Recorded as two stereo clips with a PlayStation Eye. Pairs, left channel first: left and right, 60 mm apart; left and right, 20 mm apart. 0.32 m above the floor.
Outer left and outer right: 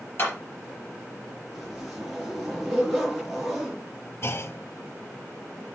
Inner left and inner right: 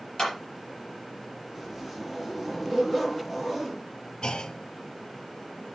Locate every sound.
0.2 s a clap: 40° left (ahead or behind), 4 m
1.5 s a zipper: centre (ahead or behind), 4 m
4.2 s a clunk: 45° left (ahead or behind), 0.6 m